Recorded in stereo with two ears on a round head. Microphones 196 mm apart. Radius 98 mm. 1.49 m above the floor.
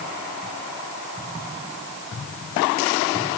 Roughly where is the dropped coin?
No dropped coin in this recording.